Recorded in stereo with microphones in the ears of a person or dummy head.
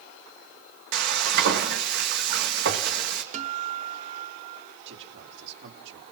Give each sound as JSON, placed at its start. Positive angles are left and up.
{"t": 0.9, "sound": "frying", "side_deg": -50, "distance_m": 1.8}
{"t": 3.3, "sound": "a guitar", "side_deg": -40, "distance_m": 0.8}
{"t": 4.8, "sound": "a man speaking", "side_deg": -65, "distance_m": 4.0}